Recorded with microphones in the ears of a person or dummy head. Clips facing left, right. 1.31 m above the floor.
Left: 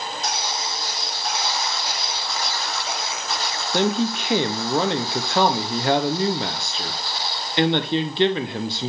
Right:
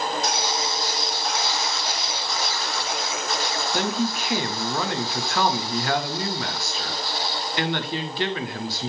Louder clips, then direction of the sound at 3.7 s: Left 5 dB; 25° left (ahead or behind).